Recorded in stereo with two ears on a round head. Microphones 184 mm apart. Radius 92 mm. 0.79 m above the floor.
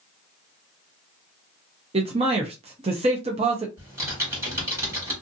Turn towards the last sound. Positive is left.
turn(degrees=-15)  # may be behind; listen again after turning